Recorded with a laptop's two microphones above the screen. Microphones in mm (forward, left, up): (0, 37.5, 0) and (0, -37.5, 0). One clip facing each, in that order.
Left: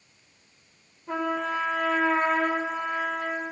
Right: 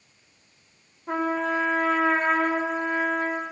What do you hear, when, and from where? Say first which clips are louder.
1.1 s a trumpet: right 3 dB; 70° right (ahead or behind), 1.3 m